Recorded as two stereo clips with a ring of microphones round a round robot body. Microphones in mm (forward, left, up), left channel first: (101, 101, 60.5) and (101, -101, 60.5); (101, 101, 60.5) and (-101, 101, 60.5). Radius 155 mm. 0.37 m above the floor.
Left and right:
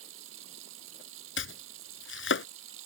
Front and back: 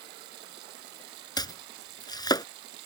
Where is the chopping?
70° left.